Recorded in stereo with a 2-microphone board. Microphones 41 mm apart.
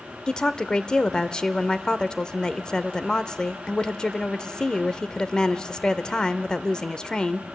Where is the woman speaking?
20° left (ahead or behind), 0.8 m.